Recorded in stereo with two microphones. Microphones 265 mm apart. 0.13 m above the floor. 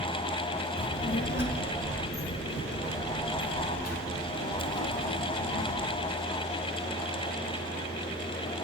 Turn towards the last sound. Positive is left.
turn(degrees=75)  # may be behind; listen again after turning